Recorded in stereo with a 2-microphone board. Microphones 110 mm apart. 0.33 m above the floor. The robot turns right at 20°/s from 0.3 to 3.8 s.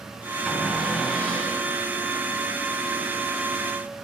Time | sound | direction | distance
0.5 | a cupboard door | 5° right (ahead or behind) | 2.5 m